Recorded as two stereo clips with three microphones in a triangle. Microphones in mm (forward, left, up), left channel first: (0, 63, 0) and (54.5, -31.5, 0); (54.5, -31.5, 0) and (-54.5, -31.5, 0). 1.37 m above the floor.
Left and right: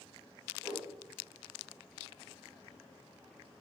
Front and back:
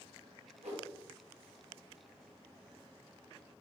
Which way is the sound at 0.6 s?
175° right.